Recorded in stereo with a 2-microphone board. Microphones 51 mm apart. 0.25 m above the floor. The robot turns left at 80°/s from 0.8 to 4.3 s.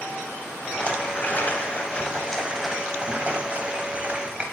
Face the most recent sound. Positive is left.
turn(degrees=-140)